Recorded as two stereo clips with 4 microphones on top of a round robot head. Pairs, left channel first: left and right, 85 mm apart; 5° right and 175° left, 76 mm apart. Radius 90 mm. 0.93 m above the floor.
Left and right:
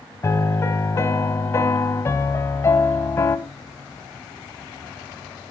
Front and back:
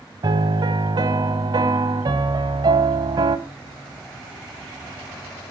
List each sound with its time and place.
0.2 s a piano: 145° left, 1.2 m